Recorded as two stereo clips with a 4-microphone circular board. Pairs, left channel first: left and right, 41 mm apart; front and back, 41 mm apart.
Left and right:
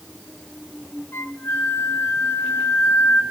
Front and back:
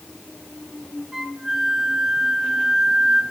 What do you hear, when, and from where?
1.1 s a flute: 100° left, 1.1 m